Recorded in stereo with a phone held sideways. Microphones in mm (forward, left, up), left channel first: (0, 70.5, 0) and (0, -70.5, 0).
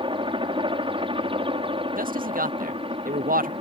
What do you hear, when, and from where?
0.0 s a helicopter: 35° right (ahead or behind); by 3.6 s 40° right (ahead or behind)
2.0 s a man speaking: 85° right